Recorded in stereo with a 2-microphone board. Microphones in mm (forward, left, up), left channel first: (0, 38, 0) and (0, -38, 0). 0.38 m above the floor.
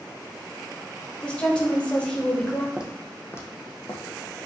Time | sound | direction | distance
1.2 | a woman speaking | 15° left (ahead or behind) | 1.0 m
2.8 | footsteps | 15° right (ahead or behind) | 0.8 m